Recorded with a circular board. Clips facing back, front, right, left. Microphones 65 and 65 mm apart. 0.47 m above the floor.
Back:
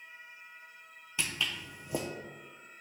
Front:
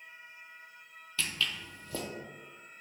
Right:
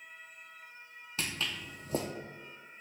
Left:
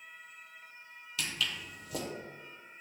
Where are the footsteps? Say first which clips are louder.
Even, even; 120° right, 0.5 m.